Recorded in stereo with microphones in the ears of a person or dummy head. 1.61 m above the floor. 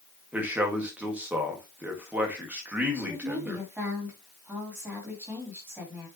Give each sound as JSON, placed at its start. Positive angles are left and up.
{"t": 0.3, "sound": "a man speaking", "side_deg": -15, "distance_m": 1.9}
{"t": 2.9, "sound": "a woman speaking", "side_deg": -20, "distance_m": 3.5}